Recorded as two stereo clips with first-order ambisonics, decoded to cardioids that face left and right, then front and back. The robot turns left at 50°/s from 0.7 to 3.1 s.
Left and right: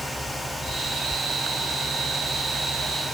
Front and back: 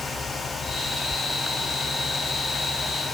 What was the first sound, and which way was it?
Only background noise.